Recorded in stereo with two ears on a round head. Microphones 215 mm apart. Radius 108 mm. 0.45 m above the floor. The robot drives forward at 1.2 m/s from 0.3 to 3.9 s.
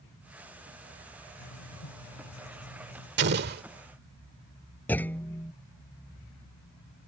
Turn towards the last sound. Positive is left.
turn(degrees=10)  # may be behind; listen again after turning